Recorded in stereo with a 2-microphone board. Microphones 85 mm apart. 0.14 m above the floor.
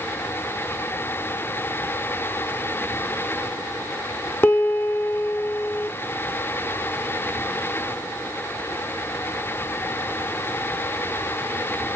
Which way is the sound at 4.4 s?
25° left (ahead or behind).